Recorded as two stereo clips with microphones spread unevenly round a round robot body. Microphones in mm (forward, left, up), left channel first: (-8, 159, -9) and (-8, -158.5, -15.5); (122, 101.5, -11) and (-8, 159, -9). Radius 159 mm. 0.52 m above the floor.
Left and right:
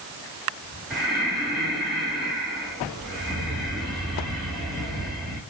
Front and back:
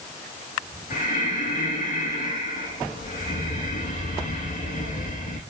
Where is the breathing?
Straight ahead, 4 m.